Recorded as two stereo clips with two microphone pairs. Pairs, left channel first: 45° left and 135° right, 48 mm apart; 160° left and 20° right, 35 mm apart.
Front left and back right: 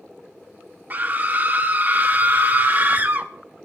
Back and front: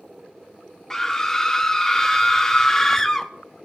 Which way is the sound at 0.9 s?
130° right.